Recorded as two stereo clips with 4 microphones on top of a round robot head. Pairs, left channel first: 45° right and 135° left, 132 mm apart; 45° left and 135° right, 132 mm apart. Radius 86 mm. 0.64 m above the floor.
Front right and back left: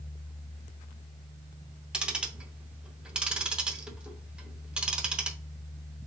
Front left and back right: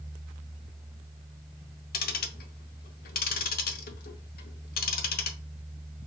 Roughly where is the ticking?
Ahead left.